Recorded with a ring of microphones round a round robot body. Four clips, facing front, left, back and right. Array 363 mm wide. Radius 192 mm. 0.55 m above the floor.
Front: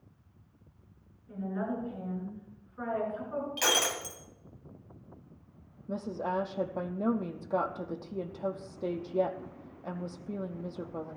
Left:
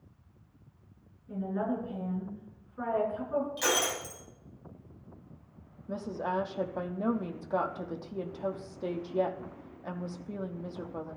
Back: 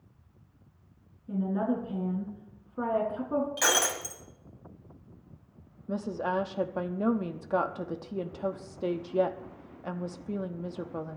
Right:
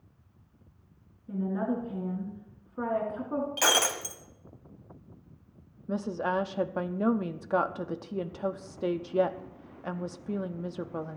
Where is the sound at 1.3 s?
145° right, 6.5 m.